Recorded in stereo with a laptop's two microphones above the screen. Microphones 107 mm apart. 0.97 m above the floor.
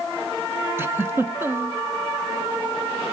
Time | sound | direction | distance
0.8 | a giggle | 20° right (ahead or behind) | 0.8 m